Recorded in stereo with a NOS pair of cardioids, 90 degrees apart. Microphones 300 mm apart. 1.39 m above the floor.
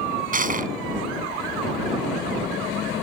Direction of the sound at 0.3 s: 25° right.